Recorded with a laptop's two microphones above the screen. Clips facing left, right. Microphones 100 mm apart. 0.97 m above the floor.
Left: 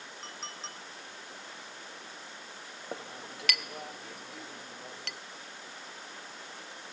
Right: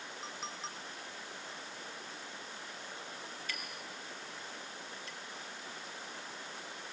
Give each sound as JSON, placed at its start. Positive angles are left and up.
{"t": 0.2, "sound": "a clink", "side_deg": -5, "distance_m": 1.2}
{"t": 2.9, "sound": "a clink", "side_deg": 85, "distance_m": 0.6}